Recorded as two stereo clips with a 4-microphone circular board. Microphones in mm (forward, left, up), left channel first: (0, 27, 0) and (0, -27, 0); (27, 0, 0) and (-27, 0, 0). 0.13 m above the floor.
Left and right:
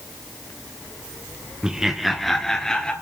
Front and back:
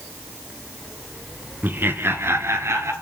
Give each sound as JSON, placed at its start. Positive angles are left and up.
{"t": 1.6, "sound": "laughter", "azimuth_deg": -160, "distance_m": 1.3}